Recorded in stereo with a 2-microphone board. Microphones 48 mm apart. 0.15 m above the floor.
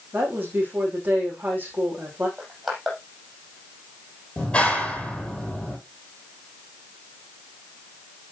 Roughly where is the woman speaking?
Right.